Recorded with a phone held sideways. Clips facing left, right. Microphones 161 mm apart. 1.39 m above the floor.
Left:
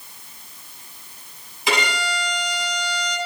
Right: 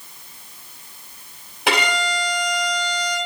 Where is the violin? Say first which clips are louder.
Right 2 dB; 75° right (ahead or behind), 5 m.